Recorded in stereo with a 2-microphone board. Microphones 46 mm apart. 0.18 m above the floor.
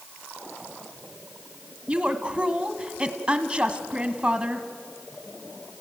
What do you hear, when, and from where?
1.9 s a woman speaking: 20° right (ahead or behind), 1.2 m